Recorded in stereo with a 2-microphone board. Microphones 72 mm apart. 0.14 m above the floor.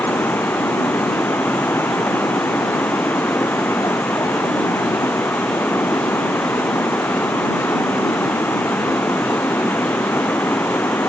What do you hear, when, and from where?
0.0 s running water: 40° left (ahead or behind)